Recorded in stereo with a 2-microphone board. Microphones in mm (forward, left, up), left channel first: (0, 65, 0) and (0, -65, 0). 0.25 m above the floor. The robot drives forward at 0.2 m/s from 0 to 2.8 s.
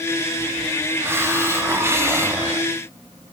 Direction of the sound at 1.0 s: 20° right (ahead or behind).